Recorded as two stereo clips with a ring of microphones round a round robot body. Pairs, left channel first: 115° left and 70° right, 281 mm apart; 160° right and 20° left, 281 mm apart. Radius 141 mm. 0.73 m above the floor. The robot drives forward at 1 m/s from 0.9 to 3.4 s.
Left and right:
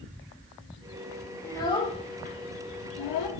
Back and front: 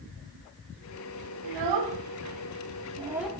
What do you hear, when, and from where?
1.4 s a child speaking: 30° left, 1.8 m; by 3.3 s 115° left, 1.0 m